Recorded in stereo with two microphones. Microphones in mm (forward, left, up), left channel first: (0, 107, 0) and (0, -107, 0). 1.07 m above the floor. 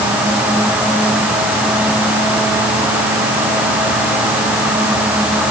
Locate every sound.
Only background noise.